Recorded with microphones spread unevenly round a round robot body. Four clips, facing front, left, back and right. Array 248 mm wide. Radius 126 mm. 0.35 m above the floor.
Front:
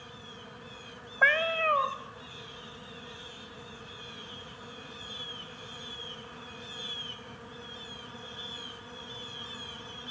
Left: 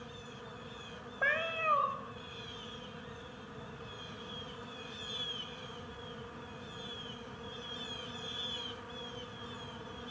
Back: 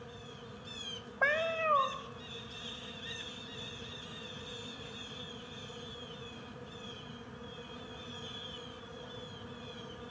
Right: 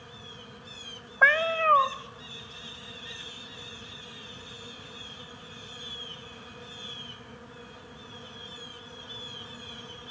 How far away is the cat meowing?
About 0.7 m.